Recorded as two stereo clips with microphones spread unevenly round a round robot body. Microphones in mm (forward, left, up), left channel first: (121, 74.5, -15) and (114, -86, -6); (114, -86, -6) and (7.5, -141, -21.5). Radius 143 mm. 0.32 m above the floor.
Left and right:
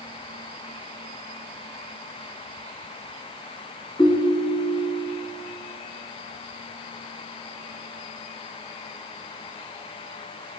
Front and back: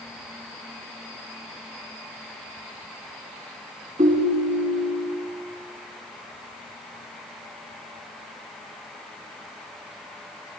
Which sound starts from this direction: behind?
A ringtone, at 4.0 s.